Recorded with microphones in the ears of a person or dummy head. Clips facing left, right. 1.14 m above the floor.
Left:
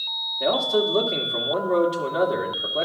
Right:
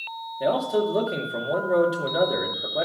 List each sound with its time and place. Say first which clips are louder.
0.4 s a man speaking: left 1 dB; 5° right (ahead or behind), 2 m